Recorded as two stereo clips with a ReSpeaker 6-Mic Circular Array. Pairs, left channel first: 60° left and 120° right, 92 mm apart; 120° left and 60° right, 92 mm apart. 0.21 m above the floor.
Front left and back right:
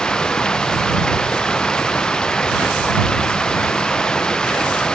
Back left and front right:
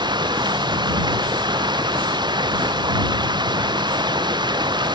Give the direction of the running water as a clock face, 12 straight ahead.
1 o'clock.